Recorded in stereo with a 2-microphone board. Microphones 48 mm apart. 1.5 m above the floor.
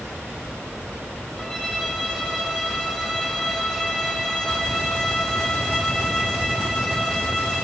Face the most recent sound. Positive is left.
turn(degrees=5)  # may be behind; listen again after turning